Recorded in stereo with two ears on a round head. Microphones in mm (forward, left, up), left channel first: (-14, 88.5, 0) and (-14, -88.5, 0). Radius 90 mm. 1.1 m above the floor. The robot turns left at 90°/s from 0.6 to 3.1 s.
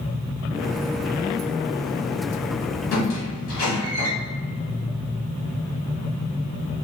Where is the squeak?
70° left (ahead or behind), 1.6 m; by 4.1 s 75° left (ahead or behind), 1.6 m.